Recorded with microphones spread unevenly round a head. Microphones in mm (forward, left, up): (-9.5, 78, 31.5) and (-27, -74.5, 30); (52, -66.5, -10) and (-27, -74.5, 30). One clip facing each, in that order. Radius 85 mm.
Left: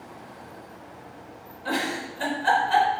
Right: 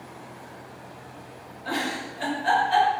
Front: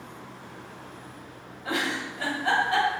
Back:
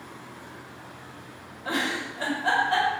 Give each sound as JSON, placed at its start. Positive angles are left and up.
{"t": 1.6, "sound": "a giggle", "azimuth_deg": 110, "distance_m": 5.5}